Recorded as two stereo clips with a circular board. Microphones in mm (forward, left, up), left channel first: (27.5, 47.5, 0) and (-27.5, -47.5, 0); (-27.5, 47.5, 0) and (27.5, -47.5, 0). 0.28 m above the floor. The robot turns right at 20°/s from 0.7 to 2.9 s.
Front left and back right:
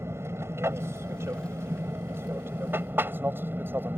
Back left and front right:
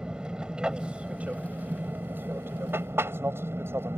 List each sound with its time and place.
0.0 s an aircraft: 130° right; by 4.0 s 85° right